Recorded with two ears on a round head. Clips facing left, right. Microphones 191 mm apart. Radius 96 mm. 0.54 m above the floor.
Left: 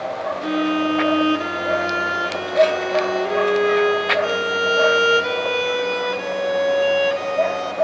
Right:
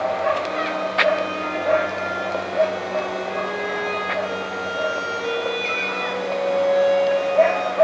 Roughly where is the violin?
Left.